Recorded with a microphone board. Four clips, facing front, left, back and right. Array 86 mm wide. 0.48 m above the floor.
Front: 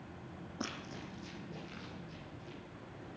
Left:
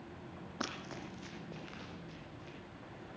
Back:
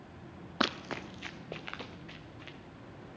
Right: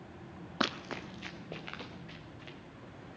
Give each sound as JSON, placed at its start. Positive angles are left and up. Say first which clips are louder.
{"t": 0.6, "sound": "running footsteps", "louder": "right 7 dB, back 10 dB", "azimuth_deg": -150, "distance_m": 0.8}